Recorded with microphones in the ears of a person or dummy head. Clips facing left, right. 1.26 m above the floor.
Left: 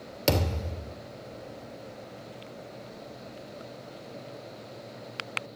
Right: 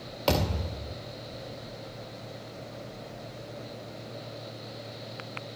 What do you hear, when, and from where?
0.3 s a thud: 30° left (ahead or behind), 2.5 m